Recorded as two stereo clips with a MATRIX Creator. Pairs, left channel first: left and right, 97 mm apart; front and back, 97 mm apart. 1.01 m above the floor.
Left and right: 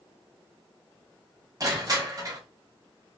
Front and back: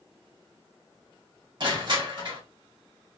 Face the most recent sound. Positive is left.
turn(degrees=-140)